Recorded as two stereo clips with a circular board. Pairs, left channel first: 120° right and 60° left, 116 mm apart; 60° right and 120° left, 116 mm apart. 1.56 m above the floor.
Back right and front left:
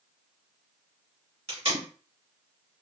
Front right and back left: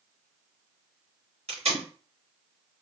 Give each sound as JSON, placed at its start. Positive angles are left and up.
{"t": 1.5, "sound": "tape being pulled", "azimuth_deg": 90, "distance_m": 2.5}